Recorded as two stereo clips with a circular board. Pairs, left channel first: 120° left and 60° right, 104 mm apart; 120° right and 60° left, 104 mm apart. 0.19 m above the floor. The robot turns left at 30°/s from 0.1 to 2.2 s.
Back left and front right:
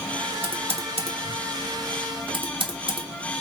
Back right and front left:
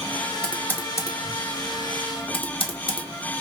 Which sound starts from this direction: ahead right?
Typing on a keyboard, at 0.4 s.